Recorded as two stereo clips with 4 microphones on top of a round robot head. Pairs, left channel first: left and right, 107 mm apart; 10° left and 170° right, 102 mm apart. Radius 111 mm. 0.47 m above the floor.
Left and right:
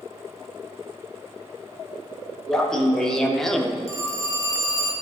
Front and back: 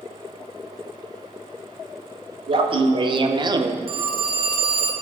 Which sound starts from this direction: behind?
Laughter, at 2.5 s.